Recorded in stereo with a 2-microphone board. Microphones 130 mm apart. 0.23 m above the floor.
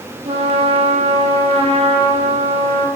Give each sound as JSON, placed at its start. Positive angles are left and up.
{"t": 0.2, "sound": "a trumpet", "side_deg": -45, "distance_m": 6.5}